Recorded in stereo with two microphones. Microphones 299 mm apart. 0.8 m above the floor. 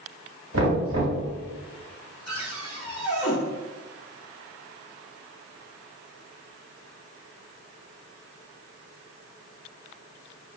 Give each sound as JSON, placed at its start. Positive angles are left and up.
{"t": 0.5, "sound": "knocking", "side_deg": -65, "distance_m": 2.0}
{"t": 2.3, "sound": "a cupboard door", "side_deg": 65, "distance_m": 2.0}